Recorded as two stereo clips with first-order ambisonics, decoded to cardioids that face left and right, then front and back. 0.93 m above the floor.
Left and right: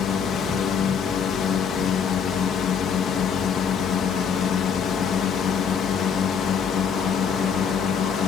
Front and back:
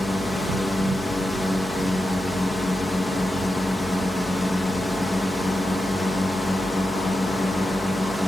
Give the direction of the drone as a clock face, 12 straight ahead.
9 o'clock.